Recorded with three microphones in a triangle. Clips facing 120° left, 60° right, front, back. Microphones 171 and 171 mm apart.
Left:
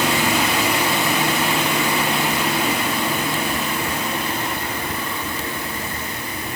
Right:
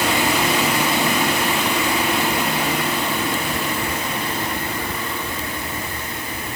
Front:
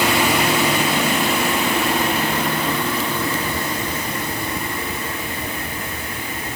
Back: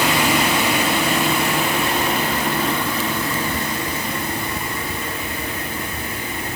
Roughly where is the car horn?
No car horn in this recording.